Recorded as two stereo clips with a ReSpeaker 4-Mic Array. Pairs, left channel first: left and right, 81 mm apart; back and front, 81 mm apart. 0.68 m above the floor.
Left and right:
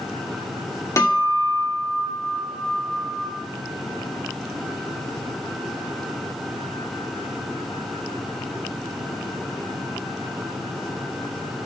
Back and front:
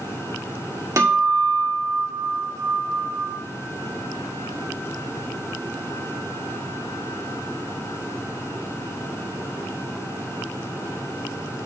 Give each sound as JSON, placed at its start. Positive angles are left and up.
{"t": 1.0, "sound": "a guitar", "azimuth_deg": 45, "distance_m": 2.0}